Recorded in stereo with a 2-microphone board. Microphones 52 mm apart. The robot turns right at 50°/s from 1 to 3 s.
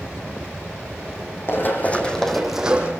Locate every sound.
1.5 s running footsteps: 50° left (ahead or behind), 3 m; by 2.9 s 30° right (ahead or behind), 2.5 m